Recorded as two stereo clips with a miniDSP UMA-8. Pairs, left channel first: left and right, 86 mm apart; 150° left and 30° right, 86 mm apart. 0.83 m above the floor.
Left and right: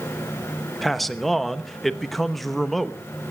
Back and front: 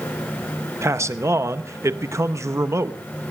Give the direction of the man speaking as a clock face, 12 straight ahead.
12 o'clock.